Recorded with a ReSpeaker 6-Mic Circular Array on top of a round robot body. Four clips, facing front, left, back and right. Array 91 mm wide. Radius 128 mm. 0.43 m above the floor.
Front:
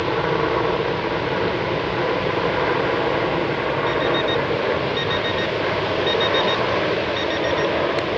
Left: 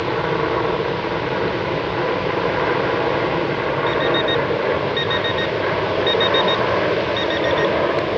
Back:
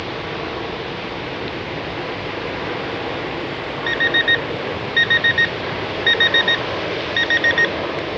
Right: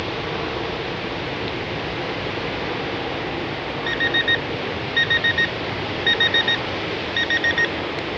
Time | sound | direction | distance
0.0 | an aircraft | 55° left | ?
3.9 | an alarm clock | 155° right | ?